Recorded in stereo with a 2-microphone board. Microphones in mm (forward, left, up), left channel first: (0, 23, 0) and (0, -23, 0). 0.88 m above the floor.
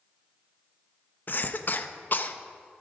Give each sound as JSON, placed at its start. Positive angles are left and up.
{"t": 1.3, "sound": "a cough", "side_deg": 45, "distance_m": 0.7}